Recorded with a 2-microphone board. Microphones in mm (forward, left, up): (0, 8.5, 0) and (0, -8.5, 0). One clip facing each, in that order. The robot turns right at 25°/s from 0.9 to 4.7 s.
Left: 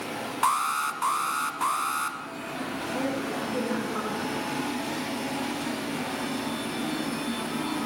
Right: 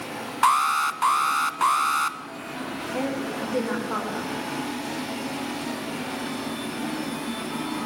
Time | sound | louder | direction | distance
0.4 | an alarm | right 5 dB | 20° right (ahead or behind) | 1.3 m
2.9 | a woman speaking | right 2 dB | 145° right | 9 m